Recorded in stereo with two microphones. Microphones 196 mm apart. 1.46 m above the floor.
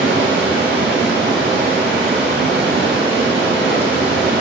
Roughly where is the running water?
Right.